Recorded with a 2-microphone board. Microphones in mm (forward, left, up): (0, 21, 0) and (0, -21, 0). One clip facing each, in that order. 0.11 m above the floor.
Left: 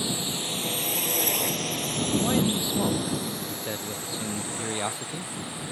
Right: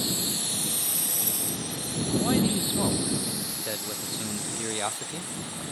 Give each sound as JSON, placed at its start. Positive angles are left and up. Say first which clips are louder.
{"t": 0.0, "sound": "a drone", "louder": "left 1 dB", "side_deg": 25}
{"t": 2.2, "sound": "a man speaking", "louder": "right 2 dB", "side_deg": 0}